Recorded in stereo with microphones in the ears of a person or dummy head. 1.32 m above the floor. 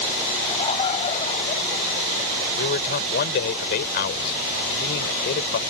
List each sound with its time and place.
0.4 s laughter: 30° left (ahead or behind); by 2.5 s 50° left (ahead or behind)
2.6 s a man speaking: 60° left (ahead or behind)